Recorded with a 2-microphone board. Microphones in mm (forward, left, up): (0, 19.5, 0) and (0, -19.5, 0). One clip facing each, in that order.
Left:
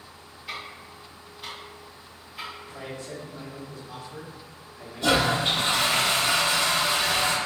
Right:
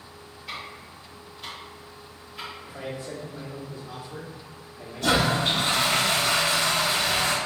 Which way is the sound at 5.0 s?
20° left (ahead or behind).